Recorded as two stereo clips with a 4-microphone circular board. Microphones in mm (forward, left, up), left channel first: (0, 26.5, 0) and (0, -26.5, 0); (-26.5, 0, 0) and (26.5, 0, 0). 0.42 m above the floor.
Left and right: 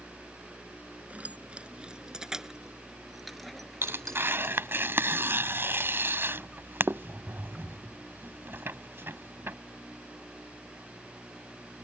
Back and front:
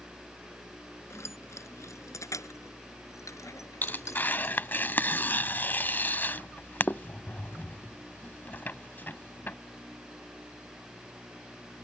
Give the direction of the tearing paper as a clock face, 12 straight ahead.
4 o'clock.